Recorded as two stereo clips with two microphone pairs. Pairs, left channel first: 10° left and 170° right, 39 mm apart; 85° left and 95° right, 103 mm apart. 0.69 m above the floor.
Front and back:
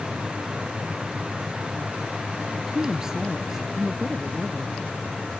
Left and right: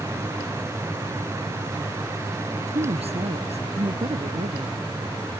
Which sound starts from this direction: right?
A woman speaking, at 2.6 s.